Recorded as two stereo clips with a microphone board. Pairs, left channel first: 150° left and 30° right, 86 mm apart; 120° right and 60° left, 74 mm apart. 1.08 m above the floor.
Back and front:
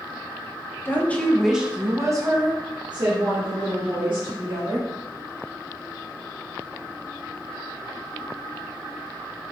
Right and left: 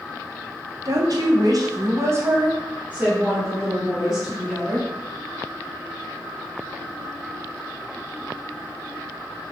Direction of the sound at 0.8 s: 90° left.